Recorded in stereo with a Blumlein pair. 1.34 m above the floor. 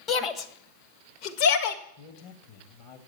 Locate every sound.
0.1 s a shout: 20° left, 1.3 m; by 1.8 s 50° left, 1.9 m
2.0 s a man speaking: 45° left, 2.0 m